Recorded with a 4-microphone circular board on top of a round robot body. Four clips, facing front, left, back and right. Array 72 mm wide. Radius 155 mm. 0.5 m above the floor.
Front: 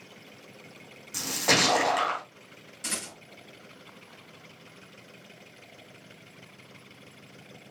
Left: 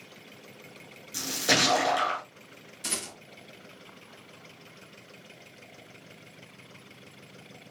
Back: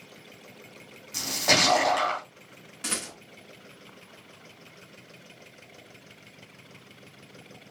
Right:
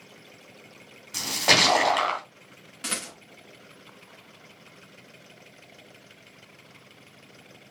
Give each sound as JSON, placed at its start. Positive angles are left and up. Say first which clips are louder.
{"t": 1.1, "sound": "a splash", "louder": "right 4 dB, back 1 dB", "azimuth_deg": -85, "distance_m": 2.5}
{"t": 2.8, "sound": "a rattle", "louder": "right 3 dB, back 3 dB", "azimuth_deg": -120, "distance_m": 3.5}